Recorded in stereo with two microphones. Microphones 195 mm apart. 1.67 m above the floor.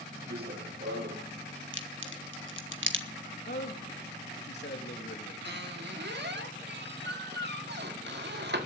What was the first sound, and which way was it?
Running footsteps, 55° right (ahead or behind).